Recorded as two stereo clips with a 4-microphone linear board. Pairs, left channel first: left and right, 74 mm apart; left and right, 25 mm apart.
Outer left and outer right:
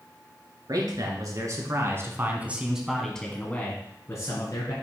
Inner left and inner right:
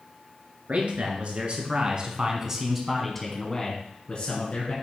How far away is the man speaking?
About 3 m.